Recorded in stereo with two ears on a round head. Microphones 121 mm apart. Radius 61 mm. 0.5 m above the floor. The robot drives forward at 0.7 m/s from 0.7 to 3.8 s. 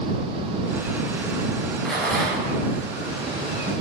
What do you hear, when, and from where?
1.9 s a rattle: 5° left (ahead or behind), 4.5 m